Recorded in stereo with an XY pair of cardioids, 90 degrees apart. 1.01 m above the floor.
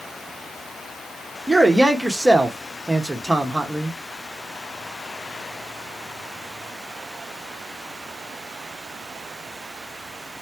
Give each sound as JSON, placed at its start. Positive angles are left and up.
{"t": 1.5, "sound": "a man speaking", "azimuth_deg": -5, "distance_m": 0.9}